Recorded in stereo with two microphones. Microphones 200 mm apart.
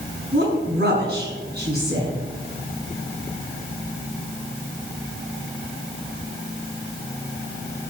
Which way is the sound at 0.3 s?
55° right (ahead or behind).